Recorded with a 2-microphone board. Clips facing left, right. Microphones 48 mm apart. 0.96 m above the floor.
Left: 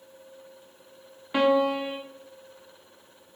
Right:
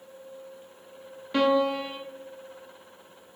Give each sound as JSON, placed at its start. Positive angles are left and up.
{"t": 1.3, "sound": "a piano", "side_deg": 15, "distance_m": 0.6}